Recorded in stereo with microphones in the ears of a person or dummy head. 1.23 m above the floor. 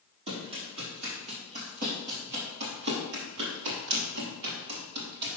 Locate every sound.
0.3 s running footsteps: 30° right (ahead or behind), 3 m; by 5.4 s 55° right (ahead or behind), 2.5 m